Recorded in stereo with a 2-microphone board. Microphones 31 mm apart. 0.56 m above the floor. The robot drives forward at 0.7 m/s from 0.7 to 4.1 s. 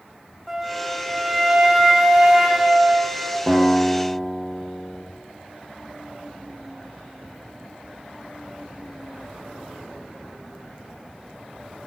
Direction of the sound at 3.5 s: 15° left (ahead or behind).